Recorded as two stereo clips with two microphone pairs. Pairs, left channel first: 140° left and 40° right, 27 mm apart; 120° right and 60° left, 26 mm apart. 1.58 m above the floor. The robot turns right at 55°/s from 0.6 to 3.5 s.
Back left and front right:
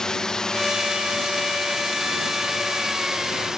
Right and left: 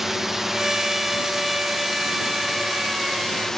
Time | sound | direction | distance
0.0 | a drone | 120° left | ?